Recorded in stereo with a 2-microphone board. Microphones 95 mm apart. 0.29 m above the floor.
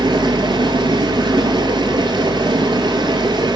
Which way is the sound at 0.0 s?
55° right (ahead or behind).